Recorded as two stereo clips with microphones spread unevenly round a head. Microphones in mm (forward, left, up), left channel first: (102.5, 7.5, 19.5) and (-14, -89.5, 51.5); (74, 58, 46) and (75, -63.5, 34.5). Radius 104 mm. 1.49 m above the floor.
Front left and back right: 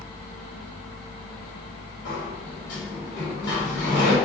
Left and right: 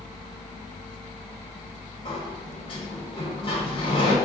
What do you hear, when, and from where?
2.0 s a sliding door: 55° left, 1.3 m